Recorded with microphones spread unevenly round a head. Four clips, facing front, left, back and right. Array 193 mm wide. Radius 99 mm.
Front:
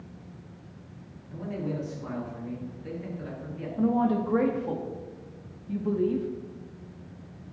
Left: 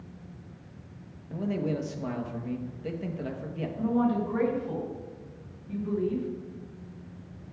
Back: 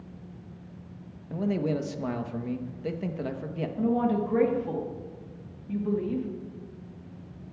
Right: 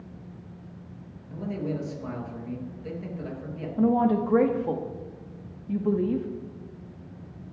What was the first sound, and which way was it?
A man speaking, 160° left.